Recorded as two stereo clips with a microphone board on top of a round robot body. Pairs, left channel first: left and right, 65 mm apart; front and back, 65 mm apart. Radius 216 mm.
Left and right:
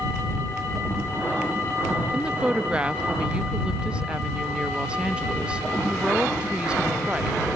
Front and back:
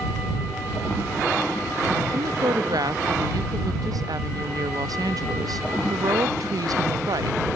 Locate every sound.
2.1 s a woman speaking: 165° right